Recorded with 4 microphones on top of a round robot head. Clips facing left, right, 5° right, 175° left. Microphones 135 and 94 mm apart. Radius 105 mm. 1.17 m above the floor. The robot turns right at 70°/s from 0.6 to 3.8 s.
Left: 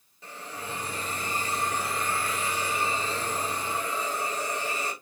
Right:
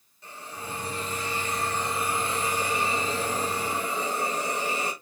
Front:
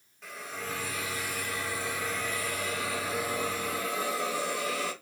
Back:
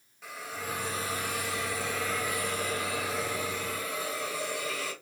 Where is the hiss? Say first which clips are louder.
Even, back 1 dB; 85° left, 1.8 m; by 4.9 s 50° right, 1.8 m.